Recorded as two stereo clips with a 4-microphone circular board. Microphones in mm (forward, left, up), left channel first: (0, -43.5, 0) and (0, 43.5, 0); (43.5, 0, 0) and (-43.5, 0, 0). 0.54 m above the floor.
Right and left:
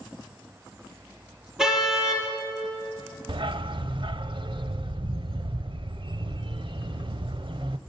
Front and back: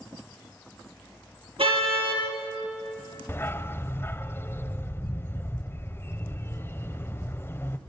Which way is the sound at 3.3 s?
65° left.